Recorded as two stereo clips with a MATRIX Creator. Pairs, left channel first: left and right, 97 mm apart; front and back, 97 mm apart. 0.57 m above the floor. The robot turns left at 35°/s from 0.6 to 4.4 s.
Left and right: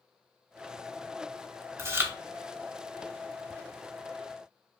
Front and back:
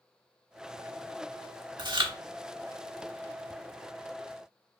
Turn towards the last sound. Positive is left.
turn(degrees=125)